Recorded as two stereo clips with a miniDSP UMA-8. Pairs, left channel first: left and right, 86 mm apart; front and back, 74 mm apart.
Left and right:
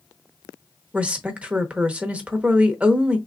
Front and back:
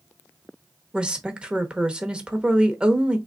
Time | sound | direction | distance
0.9 | a woman speaking | 135° right | 0.8 m